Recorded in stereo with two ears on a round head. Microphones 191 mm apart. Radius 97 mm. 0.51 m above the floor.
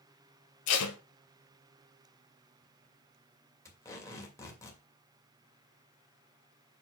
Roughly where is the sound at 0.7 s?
Left.